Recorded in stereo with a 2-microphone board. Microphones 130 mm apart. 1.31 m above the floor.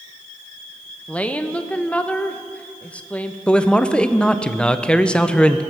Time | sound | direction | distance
1.1 | a woman speaking | 10° left (ahead or behind) | 0.7 m
3.5 | a man speaking | 5° left (ahead or behind) | 0.5 m